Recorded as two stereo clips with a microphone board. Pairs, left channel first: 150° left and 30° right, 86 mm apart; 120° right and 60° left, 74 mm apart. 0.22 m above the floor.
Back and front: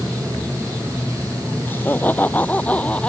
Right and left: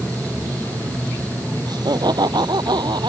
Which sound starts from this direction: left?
Laughter, at 1.7 s.